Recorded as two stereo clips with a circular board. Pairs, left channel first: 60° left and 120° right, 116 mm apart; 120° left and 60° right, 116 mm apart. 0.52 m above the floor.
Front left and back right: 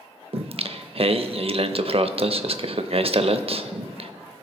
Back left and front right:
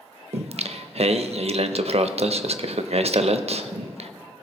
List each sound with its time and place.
0.3 s singing: 85° right, 0.5 m